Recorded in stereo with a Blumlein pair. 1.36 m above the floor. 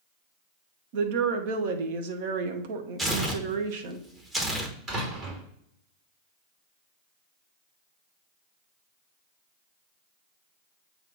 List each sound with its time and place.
0.9 s a woman speaking: 50° right, 1.0 m
3.0 s tearing paper: 15° right, 1.2 m
4.9 s a door slam: 30° right, 3 m